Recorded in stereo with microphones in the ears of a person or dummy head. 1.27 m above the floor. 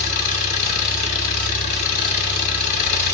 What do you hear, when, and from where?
0.0 s an engine running: 55° left (ahead or behind), 2.5 m